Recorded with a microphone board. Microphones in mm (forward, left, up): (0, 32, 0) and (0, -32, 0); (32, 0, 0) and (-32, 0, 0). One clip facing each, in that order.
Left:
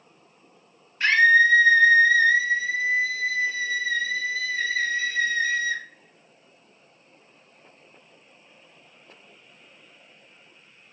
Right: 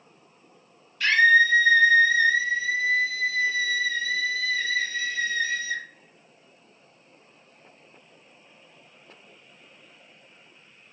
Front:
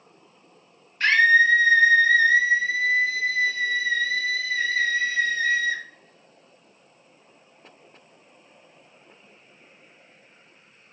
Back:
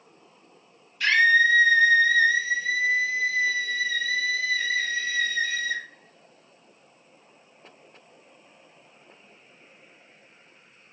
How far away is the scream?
About 0.6 m.